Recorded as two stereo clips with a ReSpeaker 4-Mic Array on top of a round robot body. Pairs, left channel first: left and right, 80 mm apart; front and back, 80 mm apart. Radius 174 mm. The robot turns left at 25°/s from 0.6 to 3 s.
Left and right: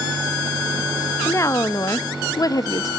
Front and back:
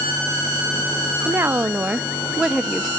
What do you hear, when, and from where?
1.2 s a woman speaking: 130° left, 0.8 m; by 2.9 s 90° left, 0.8 m